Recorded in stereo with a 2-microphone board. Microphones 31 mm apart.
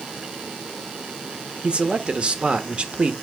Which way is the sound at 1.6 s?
40° right (ahead or behind).